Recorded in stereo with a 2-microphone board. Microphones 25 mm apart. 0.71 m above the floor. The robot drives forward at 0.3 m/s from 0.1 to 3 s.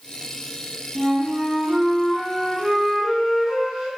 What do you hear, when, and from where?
0.9 s a flute: 40° right (ahead or behind), 0.6 m; by 3.9 s 25° right (ahead or behind), 0.9 m